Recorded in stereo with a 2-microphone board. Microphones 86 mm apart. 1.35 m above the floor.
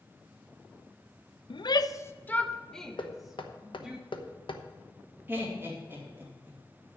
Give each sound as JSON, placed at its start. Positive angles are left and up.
{"t": 1.5, "sound": "a shout", "side_deg": 65, "distance_m": 0.6}
{"t": 3.0, "sound": "knocking", "side_deg": 75, "distance_m": 1.0}
{"t": 5.3, "sound": "laughter", "side_deg": -25, "distance_m": 2.5}